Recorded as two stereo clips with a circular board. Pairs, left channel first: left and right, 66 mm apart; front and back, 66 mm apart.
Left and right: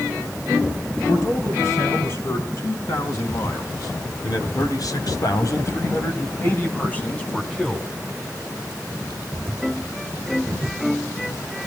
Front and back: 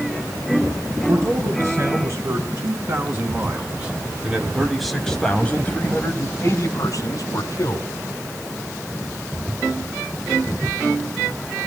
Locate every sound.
1.1 s a man speaking: 130° left, 7 m; by 7.9 s 5° left, 4 m